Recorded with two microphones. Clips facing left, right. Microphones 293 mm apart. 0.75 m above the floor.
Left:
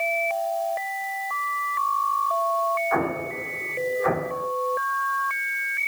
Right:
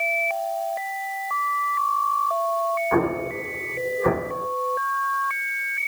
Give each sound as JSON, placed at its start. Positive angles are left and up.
{"t": 2.9, "sound": "an explosion", "side_deg": -45, "distance_m": 2.5}